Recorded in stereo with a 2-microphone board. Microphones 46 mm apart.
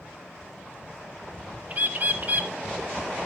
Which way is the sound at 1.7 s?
35° right (ahead or behind).